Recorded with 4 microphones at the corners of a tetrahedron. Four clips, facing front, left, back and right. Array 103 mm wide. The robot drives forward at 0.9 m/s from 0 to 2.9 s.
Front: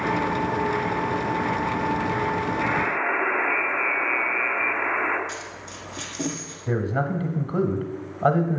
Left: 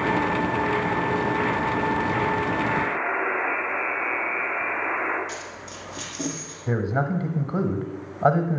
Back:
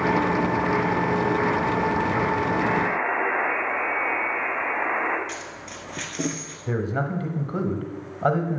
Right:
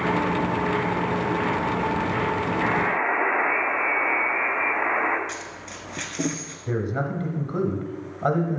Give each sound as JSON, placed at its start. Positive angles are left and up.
{"t": 2.6, "sound": "a buzzer", "azimuth_deg": -100, "distance_m": 1.2}
{"t": 5.3, "sound": "a dropped coin", "azimuth_deg": -130, "distance_m": 1.3}
{"t": 6.7, "sound": "a man speaking", "azimuth_deg": 95, "distance_m": 0.9}